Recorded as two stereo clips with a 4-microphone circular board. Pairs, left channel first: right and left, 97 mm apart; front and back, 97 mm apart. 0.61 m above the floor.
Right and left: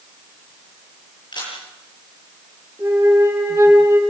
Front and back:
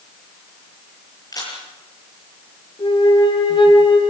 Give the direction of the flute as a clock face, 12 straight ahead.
11 o'clock.